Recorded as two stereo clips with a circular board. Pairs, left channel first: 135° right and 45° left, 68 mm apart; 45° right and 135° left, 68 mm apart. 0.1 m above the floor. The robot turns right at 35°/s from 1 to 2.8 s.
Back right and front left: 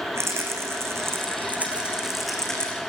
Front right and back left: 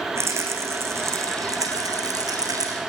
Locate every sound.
0.1 s a rattle: 90° left, 5 m; by 2.8 s 155° left, 5 m